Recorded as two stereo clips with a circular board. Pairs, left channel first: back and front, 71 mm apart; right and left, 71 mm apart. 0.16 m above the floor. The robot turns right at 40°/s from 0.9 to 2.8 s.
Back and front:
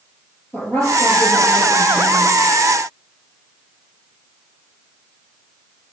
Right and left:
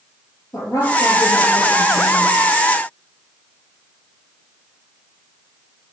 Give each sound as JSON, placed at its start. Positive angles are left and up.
{"t": 0.5, "sound": "a woman speaking", "azimuth_deg": -120, "distance_m": 4.0}